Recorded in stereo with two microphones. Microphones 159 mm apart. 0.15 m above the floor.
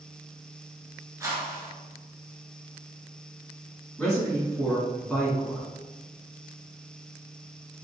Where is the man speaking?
5° left (ahead or behind), 1.4 m.